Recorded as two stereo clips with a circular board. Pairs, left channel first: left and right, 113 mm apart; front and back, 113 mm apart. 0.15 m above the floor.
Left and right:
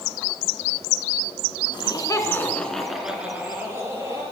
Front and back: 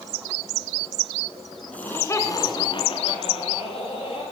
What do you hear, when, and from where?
1.7 s laughter: 75° left, 1.7 m; by 4.2 s 30° right, 3 m